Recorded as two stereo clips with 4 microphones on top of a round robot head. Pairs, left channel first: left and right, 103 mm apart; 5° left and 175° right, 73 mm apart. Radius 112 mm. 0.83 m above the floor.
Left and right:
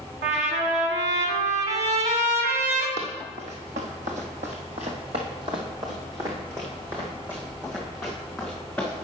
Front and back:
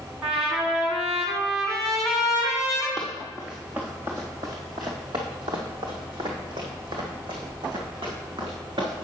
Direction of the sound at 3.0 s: 85° right.